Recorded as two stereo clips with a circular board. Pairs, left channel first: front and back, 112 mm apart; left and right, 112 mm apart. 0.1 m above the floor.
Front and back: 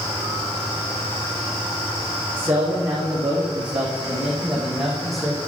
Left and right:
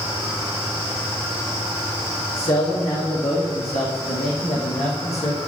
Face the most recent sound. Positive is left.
turn(degrees=90)